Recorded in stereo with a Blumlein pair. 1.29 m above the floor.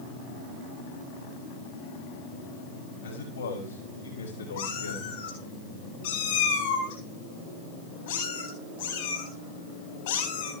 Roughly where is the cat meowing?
Ahead left.